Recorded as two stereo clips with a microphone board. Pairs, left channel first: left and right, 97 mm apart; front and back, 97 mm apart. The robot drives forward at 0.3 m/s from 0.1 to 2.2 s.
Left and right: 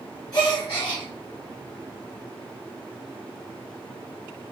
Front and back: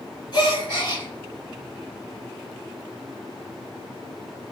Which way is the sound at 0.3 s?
40° left.